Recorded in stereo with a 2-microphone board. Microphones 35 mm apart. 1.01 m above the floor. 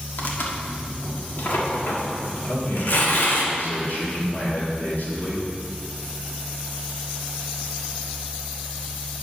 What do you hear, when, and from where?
0.2 s tearing paper: 70° left (ahead or behind), 1.5 m
2.4 s a man speaking: 65° left (ahead or behind), 3 m